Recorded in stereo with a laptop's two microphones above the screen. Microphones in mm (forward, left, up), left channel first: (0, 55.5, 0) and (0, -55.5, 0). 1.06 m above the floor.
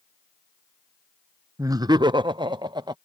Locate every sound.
1.6 s laughter: 30° right (ahead or behind); by 3.0 s 40° right (ahead or behind)